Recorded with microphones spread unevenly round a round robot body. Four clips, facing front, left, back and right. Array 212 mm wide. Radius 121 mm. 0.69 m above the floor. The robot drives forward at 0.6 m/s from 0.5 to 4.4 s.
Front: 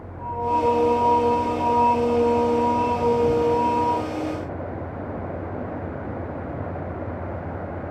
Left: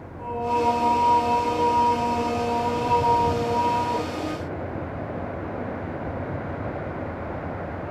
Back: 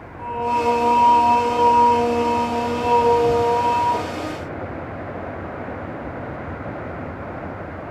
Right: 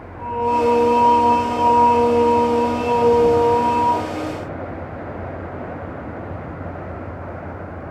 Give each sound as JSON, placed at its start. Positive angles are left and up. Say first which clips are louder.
{"t": 0.2, "sound": "singing", "louder": "right 5 dB, back 1 dB", "azimuth_deg": -155, "distance_m": 3.0}